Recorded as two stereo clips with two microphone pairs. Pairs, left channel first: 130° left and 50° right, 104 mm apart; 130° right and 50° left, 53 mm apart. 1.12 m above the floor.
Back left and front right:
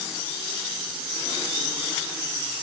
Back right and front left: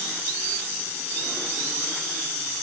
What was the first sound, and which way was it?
Only background noise.